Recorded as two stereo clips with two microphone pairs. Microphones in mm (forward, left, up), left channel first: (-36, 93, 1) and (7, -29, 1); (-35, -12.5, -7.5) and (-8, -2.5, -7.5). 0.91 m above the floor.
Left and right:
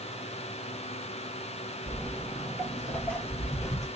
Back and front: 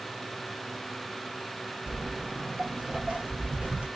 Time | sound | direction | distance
1.9 | footsteps | 5° right | 1.3 m